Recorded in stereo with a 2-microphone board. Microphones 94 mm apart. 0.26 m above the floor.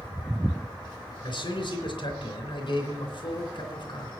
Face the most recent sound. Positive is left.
turn(degrees=65)  # may be behind; listen again after turning